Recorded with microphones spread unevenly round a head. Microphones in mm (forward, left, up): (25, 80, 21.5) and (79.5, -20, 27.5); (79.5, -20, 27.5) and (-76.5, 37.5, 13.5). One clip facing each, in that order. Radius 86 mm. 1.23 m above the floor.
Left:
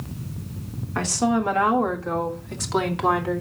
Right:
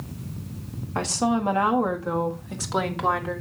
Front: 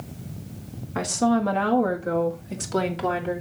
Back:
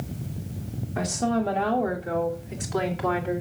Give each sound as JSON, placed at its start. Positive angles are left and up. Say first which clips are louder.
{"t": 0.9, "sound": "a woman speaking", "louder": "left 2 dB, front 3 dB", "azimuth_deg": 0, "distance_m": 2.5}